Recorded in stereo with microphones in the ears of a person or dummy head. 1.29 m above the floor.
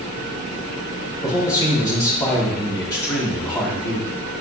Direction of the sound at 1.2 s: 15° left (ahead or behind).